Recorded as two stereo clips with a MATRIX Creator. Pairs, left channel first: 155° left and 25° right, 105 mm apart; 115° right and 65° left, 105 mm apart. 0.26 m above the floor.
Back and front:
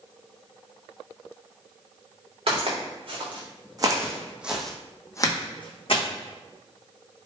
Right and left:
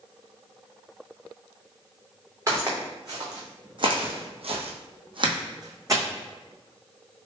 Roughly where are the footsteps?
Ahead.